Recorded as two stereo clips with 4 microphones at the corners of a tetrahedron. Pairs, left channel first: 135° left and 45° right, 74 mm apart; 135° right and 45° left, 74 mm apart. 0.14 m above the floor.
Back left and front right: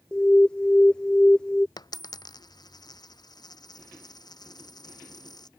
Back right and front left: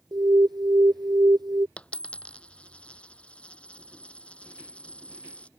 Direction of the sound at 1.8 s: 150° left.